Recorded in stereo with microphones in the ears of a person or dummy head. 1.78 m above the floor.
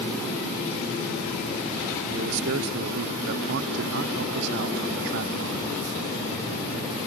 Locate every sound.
2.1 s a man speaking: 55° right (ahead or behind)